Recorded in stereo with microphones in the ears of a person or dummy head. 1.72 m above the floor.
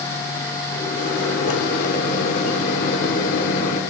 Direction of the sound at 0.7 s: 45° left (ahead or behind).